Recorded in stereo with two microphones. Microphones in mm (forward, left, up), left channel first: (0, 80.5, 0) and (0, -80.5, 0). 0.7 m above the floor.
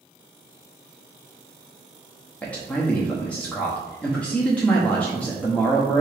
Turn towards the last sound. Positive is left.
turn(degrees=5)  # may be behind; listen again after turning